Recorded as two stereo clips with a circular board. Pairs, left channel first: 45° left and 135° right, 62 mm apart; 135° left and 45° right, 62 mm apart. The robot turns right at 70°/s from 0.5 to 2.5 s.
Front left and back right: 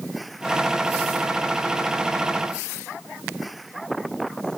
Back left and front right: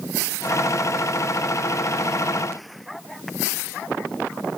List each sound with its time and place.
Only background noise.